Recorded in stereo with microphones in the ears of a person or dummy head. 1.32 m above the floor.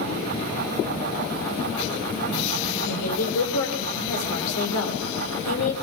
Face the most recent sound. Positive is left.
turn(degrees=80)